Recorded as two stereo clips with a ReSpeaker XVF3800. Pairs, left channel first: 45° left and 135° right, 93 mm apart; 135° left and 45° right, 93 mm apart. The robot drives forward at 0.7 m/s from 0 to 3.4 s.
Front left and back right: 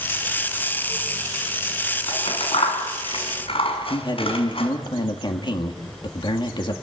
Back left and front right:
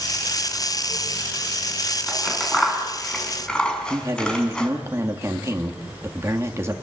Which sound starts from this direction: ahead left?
Scissors, at 2.1 s.